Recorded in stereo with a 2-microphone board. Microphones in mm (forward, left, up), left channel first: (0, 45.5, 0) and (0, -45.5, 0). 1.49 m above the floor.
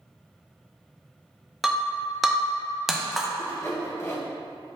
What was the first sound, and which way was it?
Breaking glass, centre (ahead or behind).